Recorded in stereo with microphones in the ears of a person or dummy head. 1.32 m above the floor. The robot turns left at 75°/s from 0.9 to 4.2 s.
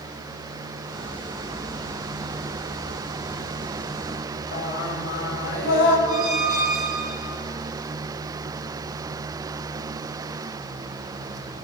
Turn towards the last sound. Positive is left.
turn(degrees=-20)  # may be behind; listen again after turning